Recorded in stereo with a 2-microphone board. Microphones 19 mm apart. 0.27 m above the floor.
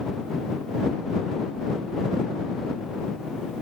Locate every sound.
Only background noise.